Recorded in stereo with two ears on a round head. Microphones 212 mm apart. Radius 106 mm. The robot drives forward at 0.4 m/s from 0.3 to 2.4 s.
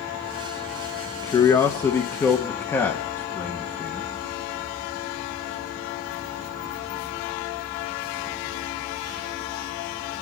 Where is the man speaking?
20° left (ahead or behind), 0.8 m; by 4.1 s 10° left (ahead or behind), 1.1 m.